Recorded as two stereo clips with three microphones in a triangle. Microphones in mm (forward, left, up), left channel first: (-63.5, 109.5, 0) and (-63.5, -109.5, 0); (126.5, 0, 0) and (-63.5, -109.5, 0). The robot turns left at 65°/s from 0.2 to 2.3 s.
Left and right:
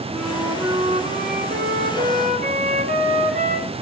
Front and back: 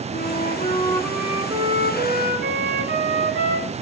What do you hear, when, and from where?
0.1 s a flute: straight ahead, 1.1 m; by 3.8 s 135° right, 1.1 m